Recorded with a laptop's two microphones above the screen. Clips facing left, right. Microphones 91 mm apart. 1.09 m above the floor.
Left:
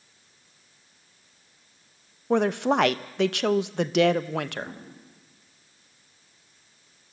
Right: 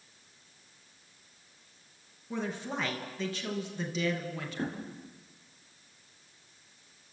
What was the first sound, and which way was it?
A woman speaking, 75° left (ahead or behind).